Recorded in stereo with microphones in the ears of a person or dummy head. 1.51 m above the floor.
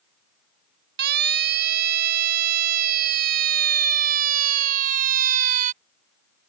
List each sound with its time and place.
1.0 s a siren: 55° right (ahead or behind); by 5.7 s 40° right (ahead or behind)